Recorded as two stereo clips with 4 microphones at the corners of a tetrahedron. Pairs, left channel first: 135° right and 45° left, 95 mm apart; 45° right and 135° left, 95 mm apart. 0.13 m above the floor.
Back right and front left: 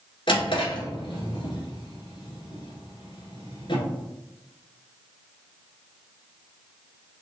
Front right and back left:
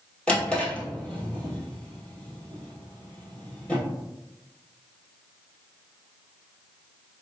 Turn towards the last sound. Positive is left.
turn(degrees=-120)